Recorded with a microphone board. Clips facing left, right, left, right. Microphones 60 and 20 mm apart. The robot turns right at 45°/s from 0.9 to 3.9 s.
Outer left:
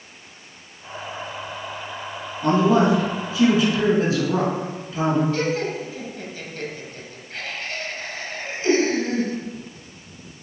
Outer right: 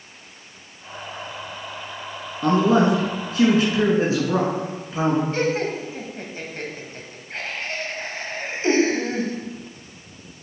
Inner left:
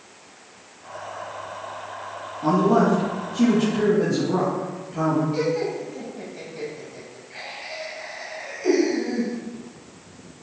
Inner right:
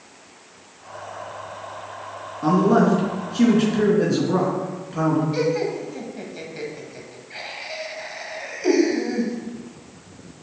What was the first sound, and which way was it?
A man speaking, 100° right.